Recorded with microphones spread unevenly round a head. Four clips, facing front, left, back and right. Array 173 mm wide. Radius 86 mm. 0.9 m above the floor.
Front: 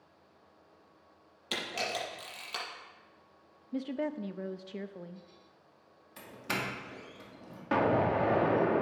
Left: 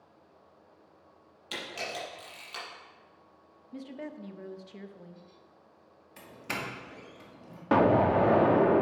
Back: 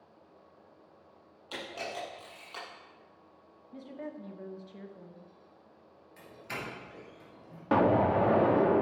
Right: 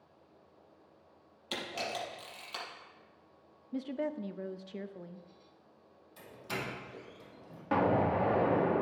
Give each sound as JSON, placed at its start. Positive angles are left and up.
{"t": 1.5, "sound": "a camera shutter", "azimuth_deg": -15, "distance_m": 5.5}
{"t": 3.7, "sound": "a woman speaking", "azimuth_deg": -25, "distance_m": 0.7}
{"t": 6.2, "sound": "a doorbell", "azimuth_deg": 35, "distance_m": 2.0}
{"t": 7.7, "sound": "an explosion", "azimuth_deg": 105, "distance_m": 0.8}